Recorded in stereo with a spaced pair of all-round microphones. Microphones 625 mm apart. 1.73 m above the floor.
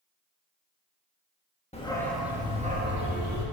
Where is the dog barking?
10° left (ahead or behind), 1.1 m; by 3.5 s 30° right (ahead or behind), 1.2 m.